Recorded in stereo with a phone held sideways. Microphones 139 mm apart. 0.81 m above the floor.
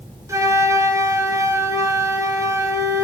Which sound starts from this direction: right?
A flute, at 0.3 s.